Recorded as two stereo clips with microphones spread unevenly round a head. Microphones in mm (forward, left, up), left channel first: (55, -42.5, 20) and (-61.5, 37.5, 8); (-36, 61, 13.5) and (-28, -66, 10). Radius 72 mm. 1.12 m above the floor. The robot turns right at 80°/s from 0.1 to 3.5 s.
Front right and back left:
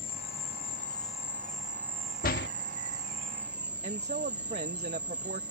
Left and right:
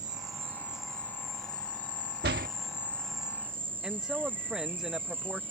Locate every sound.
0.0 s an insect: 60° right; by 5.5 s 145° right
2.2 s a door slam: 70° right; by 2.5 s 45° right
3.8 s a man speaking: 170° right